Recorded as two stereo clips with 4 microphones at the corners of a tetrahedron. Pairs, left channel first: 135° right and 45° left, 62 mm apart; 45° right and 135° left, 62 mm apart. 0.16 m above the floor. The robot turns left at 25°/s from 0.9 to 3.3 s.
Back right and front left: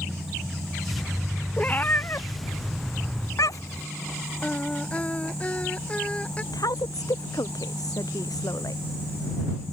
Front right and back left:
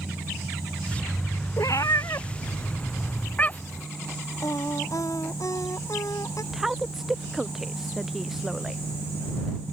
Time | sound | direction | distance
1.6 | a cat meowing | 65° right | ?
4.4 | singing | 65° right | ?
6.5 | a woman speaking | 140° right | ?